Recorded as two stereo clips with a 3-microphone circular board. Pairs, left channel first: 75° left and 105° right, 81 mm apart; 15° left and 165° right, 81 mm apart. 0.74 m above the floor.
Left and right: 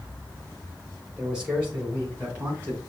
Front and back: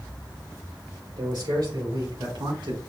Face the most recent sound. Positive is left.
turn(degrees=-170)